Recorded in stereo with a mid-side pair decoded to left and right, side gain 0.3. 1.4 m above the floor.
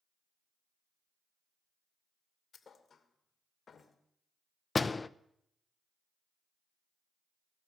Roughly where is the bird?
I don't hear a bird.